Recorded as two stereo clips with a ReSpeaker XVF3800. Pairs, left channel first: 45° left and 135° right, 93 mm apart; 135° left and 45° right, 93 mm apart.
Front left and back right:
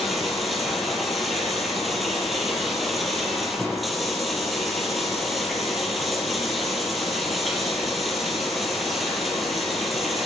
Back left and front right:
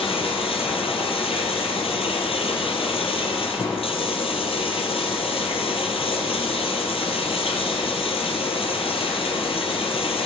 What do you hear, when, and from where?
0.0 s running water: 135° left, 4.5 m